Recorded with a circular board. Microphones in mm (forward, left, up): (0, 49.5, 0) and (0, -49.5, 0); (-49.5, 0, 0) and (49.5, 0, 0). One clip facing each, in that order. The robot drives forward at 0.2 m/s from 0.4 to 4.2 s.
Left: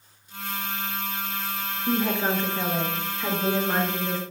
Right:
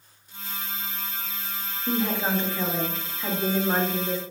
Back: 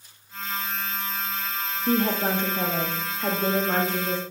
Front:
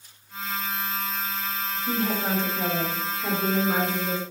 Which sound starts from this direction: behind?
A woman speaking, at 1.9 s.